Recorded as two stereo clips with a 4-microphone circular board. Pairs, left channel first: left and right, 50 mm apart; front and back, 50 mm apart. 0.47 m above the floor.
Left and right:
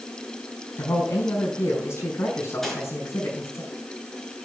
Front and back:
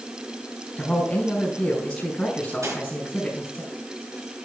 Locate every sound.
0.8 s a man speaking: 75° left, 5.5 m
2.6 s cutlery clinking: 170° left, 4.5 m